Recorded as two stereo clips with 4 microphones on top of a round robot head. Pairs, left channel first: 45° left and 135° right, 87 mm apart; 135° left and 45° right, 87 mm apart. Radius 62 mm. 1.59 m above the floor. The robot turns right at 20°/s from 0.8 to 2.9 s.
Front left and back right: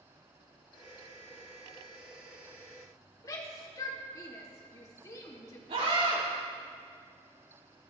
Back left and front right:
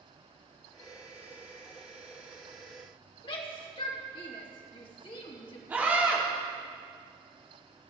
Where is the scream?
115° right, 6.5 m.